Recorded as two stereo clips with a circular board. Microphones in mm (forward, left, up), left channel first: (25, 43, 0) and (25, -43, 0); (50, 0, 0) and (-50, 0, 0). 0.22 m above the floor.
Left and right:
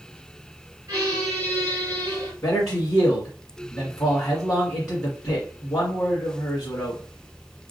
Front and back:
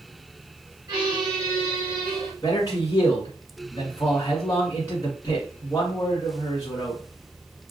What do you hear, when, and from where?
0.9 s a squeak: 140° right, 2 m
2.4 s a man speaking: 50° left, 1.8 m